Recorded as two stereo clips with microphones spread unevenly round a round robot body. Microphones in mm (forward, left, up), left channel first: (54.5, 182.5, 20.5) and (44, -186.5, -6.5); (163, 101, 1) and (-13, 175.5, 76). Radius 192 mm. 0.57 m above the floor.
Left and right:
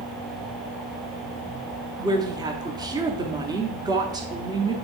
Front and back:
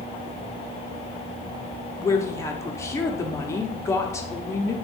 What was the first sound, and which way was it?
A woman speaking, 25° right.